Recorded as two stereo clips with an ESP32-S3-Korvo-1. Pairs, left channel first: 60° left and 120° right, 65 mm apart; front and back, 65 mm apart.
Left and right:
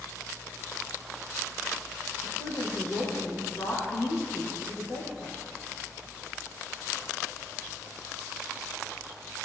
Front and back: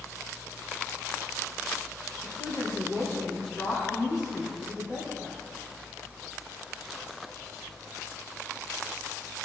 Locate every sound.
2.2 s a woman speaking: 95° left, 5 m